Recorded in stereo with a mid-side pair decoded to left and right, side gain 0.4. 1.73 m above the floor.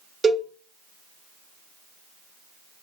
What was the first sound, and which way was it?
A cowbell, 50° right.